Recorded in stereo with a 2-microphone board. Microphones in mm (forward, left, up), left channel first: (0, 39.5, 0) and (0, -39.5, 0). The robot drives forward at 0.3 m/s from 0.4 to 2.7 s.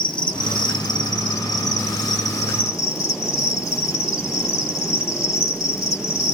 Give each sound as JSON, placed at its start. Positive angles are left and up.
{"t": 0.0, "sound": "an insect", "side_deg": 70, "distance_m": 0.9}